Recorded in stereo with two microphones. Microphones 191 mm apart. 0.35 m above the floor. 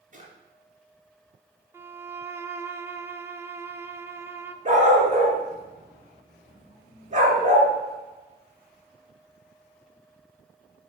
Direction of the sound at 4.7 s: 35° right (ahead or behind).